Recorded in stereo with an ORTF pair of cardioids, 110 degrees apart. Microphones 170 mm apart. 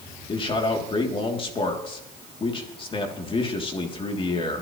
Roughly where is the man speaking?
Ahead left.